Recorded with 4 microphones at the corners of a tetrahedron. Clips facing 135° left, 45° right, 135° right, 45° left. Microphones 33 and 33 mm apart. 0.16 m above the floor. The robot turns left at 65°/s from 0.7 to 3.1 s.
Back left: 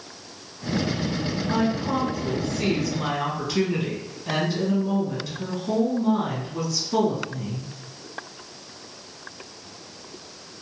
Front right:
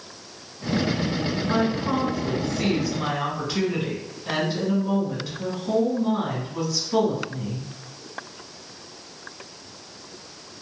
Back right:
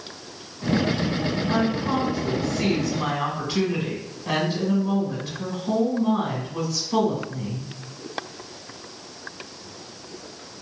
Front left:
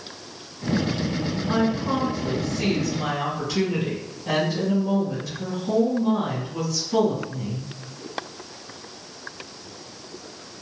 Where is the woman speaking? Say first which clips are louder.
Even, front left 2 dB; 15° right, 1.2 m; by 7.7 s 120° right, 1.2 m.